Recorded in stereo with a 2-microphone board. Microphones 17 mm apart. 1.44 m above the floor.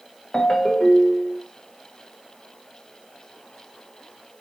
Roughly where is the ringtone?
Left.